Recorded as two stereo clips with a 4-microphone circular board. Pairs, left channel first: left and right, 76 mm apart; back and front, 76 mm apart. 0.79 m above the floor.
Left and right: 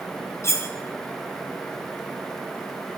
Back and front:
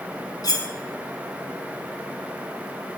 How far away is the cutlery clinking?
About 0.7 m.